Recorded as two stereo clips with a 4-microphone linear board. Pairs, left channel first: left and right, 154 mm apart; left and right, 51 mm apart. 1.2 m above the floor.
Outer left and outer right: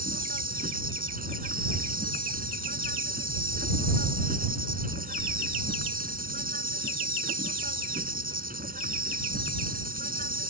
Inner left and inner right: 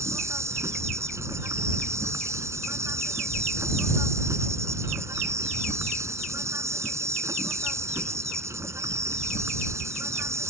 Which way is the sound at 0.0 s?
70° right (ahead or behind).